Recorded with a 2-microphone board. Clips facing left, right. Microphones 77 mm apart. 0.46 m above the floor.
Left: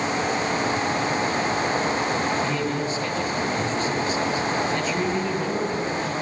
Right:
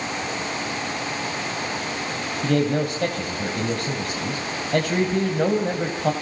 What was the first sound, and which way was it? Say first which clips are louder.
A man speaking: right 4 dB; 65° right (ahead or behind).